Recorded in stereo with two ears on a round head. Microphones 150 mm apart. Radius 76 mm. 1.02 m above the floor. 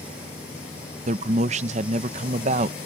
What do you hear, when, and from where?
1.1 s a man speaking: 40° right (ahead or behind)